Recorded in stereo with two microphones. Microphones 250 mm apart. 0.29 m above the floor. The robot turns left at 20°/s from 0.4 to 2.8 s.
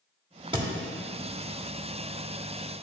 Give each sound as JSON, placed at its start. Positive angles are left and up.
{"t": 0.5, "sound": "a thud", "side_deg": -20, "distance_m": 0.7}